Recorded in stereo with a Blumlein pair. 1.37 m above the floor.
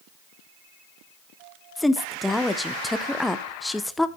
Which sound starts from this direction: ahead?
A woman speaking, at 1.8 s.